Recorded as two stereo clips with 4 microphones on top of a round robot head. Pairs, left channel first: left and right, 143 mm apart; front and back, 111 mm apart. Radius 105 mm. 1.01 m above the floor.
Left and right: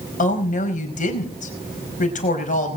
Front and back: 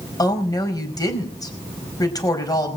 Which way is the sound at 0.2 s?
60° left.